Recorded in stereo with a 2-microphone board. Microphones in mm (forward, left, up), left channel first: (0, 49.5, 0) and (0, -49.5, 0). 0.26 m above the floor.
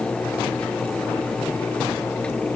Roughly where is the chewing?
No chewing in this recording.